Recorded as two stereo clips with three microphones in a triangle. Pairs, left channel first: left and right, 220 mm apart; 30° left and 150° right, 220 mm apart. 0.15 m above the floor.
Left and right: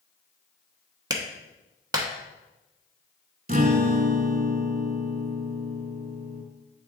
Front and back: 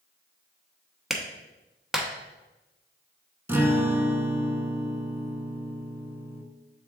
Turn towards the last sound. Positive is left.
turn(degrees=-75)